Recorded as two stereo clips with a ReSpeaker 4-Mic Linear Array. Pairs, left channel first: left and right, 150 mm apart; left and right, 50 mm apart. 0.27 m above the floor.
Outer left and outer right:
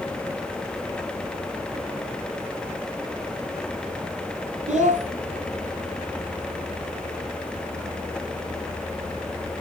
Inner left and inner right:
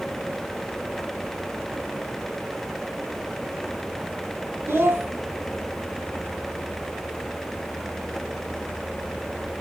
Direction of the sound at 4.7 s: 65° right (ahead or behind).